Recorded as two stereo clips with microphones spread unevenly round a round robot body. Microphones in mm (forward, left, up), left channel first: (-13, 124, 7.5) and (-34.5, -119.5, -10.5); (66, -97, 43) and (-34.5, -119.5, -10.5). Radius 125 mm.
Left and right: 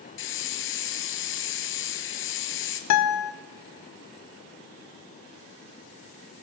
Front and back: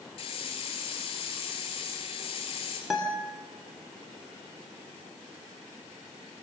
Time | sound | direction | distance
0.2 | a hiss | 45° left | 3 m
2.9 | a guitar | 105° left | 2 m